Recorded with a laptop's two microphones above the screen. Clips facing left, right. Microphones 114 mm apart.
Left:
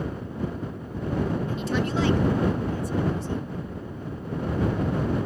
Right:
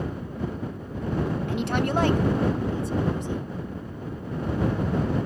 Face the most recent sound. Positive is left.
turn(degrees=-15)  # may be behind; listen again after turning